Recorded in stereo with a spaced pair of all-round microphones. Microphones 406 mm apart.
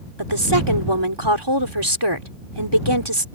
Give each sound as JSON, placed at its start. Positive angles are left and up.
{"t": 0.2, "sound": "a woman speaking", "side_deg": -85}